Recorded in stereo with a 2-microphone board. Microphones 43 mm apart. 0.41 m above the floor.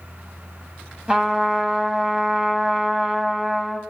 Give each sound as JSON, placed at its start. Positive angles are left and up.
{"t": 1.1, "sound": "a trumpet", "side_deg": -20, "distance_m": 2.0}